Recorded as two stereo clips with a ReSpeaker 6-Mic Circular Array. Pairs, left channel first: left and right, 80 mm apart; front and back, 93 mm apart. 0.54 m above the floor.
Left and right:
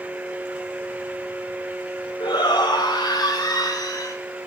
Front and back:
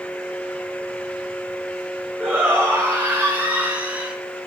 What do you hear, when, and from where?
2.2 s a shout: 110° left, 3.5 m